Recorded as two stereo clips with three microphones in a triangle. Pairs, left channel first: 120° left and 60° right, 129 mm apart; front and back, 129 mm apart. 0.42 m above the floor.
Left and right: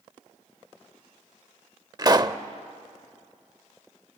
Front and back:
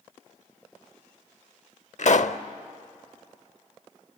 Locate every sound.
2.0 s a pop: 5° right, 0.7 m